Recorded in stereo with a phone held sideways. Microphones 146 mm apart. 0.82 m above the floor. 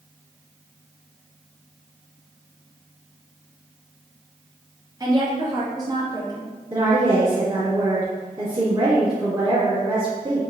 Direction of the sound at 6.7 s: 30° right (ahead or behind).